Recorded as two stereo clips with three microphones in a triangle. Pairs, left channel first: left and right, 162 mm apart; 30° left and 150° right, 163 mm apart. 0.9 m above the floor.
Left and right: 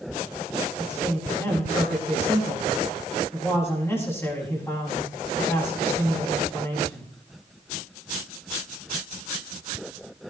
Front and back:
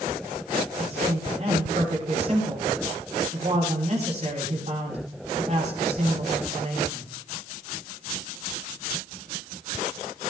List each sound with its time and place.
0.8 s a man speaking: 165° left, 7.5 m